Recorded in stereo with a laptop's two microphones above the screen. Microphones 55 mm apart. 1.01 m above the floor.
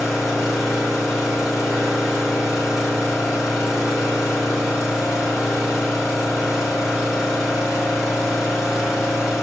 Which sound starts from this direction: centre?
An engine running, at 0.0 s.